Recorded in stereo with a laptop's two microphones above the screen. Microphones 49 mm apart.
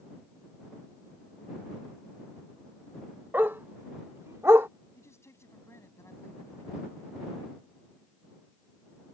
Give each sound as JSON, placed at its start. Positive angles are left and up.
{"t": 3.3, "sound": "a dog barking", "side_deg": -45}
{"t": 5.0, "sound": "a man speaking", "side_deg": 65}